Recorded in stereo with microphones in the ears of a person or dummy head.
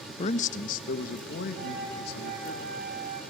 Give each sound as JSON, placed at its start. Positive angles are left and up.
{"t": 0.2, "sound": "a man speaking", "side_deg": 30, "distance_m": 0.6}
{"t": 1.6, "sound": "a flute", "side_deg": -45, "distance_m": 5.5}